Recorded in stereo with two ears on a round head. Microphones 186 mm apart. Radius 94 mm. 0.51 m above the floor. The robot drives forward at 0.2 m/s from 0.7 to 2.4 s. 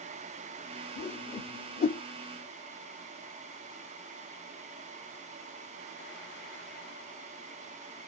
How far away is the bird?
I don't hear a bird.